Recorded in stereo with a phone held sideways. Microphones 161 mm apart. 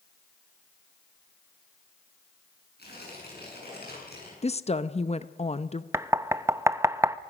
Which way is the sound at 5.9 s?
15° right (ahead or behind).